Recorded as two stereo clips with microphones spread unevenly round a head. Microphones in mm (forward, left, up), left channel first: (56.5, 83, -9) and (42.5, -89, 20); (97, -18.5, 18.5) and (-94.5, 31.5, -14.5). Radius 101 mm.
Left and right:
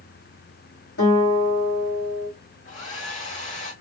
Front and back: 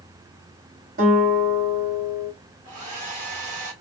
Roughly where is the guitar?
Behind left.